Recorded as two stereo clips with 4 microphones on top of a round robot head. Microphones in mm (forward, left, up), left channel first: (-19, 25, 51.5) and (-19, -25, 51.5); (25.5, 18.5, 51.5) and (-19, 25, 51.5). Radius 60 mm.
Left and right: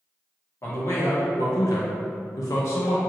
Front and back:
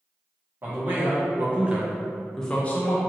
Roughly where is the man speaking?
Behind left.